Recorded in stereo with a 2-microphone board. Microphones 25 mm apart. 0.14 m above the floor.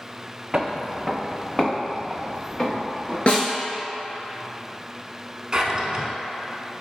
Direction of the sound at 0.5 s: 20° right (ahead or behind).